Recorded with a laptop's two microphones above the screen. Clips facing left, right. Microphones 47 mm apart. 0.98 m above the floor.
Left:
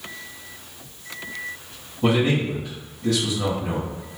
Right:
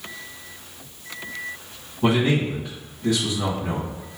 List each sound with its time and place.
2.0 s a man speaking: 20° right (ahead or behind), 1.6 m